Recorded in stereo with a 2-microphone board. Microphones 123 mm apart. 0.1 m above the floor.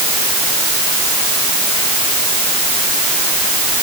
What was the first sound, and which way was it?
Only background noise.